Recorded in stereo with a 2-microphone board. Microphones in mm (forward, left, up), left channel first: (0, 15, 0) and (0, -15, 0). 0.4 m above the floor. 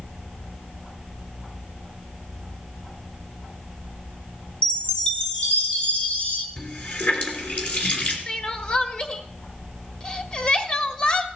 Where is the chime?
45° left (ahead or behind), 1.7 m.